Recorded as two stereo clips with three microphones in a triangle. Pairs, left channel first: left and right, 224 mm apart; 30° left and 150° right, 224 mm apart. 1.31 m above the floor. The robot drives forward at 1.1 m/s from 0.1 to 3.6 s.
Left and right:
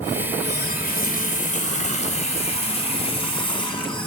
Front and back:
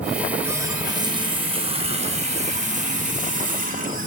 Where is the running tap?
130° left, 3 m; by 4.1 s 160° left, 6 m.